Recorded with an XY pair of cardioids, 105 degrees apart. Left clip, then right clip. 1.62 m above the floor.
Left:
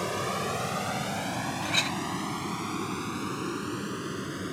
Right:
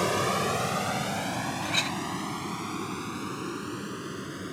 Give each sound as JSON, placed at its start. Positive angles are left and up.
{"t": 0.0, "sound": "a vehicle", "azimuth_deg": -30}
{"t": 1.6, "sound": "a clink", "azimuth_deg": 10}